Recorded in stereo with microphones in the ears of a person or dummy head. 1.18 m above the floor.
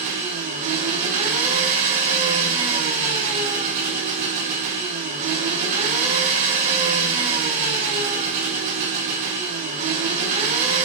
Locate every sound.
0.0 s an engine running: 45° right (ahead or behind), 4.5 m